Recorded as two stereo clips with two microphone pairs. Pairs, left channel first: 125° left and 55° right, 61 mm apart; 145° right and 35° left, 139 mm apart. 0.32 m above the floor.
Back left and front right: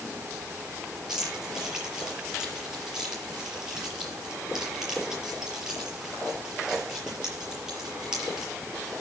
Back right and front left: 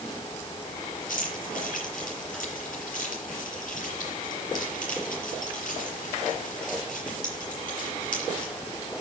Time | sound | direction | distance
1.1 | keys jangling | 135° right | 6 m